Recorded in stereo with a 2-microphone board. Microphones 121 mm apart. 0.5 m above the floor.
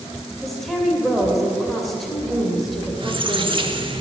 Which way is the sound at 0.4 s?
Centre (ahead or behind).